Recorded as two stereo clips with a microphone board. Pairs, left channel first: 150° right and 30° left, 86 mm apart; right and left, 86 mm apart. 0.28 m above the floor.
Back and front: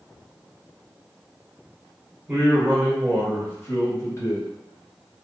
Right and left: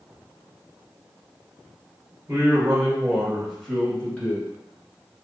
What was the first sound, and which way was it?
A man speaking, 100° left.